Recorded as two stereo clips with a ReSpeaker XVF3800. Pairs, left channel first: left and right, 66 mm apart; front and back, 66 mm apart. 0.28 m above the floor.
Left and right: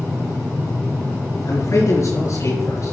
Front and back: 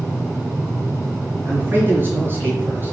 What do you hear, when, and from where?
1.4 s a man speaking: 125° left, 6 m